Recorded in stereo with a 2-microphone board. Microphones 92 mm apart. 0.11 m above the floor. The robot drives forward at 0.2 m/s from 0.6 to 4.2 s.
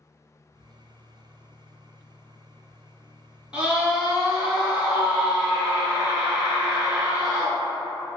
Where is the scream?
10° right (ahead or behind), 1.2 m.